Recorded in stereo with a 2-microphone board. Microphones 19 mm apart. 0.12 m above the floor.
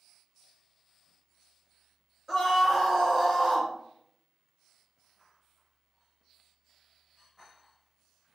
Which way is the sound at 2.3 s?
10° left (ahead or behind).